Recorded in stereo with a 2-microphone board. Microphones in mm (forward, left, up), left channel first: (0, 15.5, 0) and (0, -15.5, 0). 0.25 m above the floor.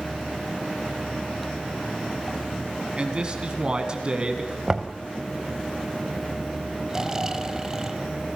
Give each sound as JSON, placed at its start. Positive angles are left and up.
{"t": 3.0, "sound": "a man speaking", "side_deg": -30, "distance_m": 3.0}
{"t": 4.7, "sound": "knocking", "side_deg": -20, "distance_m": 1.3}
{"t": 6.9, "sound": "snoring", "side_deg": -20, "distance_m": 1.0}